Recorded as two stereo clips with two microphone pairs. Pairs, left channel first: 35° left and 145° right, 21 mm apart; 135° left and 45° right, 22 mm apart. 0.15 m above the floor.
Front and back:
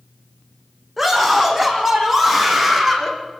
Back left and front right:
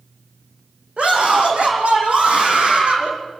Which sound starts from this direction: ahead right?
A scream, at 1.0 s.